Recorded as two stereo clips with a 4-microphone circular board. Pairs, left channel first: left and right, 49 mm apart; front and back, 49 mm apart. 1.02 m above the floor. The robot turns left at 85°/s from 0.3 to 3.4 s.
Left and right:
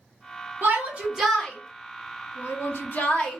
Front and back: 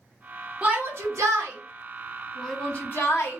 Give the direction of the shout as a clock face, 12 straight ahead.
4 o'clock.